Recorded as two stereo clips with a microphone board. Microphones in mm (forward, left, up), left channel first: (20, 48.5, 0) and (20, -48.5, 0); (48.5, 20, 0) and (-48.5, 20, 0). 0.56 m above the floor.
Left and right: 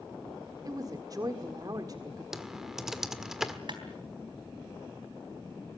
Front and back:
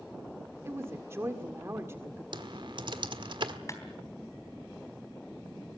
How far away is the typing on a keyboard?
About 1.5 m.